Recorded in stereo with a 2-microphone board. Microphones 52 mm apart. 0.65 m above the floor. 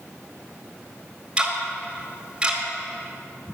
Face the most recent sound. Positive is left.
turn(degrees=-20)  # may be behind; listen again after turning